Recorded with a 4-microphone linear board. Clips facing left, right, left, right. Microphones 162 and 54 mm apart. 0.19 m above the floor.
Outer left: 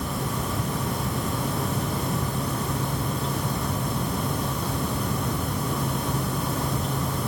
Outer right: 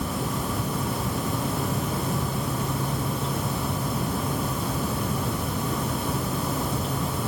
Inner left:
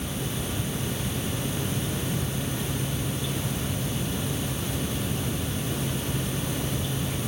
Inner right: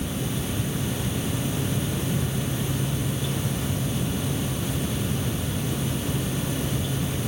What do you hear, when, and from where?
Only background noise.